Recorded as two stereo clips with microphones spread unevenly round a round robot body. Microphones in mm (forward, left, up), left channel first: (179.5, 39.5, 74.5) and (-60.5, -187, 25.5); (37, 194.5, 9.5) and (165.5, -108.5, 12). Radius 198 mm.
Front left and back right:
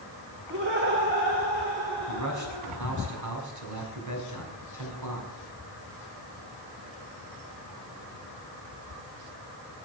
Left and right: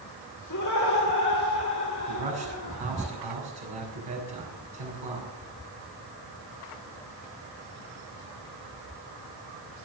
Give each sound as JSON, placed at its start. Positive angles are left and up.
{"t": 0.5, "sound": "laughter", "azimuth_deg": 165, "distance_m": 2.0}
{"t": 2.1, "sound": "a man speaking", "azimuth_deg": -105, "distance_m": 6.5}